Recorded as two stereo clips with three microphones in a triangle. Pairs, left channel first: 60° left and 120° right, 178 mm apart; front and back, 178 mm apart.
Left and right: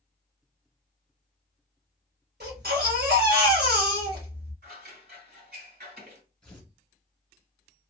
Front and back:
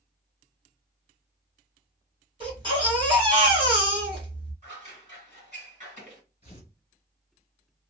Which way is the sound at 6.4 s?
20° right.